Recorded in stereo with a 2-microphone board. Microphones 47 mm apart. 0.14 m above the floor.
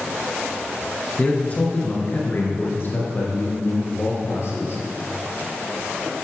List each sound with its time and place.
1.2 s a man speaking: 30° left (ahead or behind), 1.9 m; by 4.8 s 65° left (ahead or behind), 3 m